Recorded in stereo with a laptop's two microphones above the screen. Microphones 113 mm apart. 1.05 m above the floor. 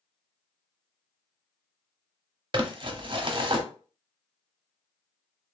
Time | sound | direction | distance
2.5 | crumpling | 45° right (ahead or behind) | 0.8 m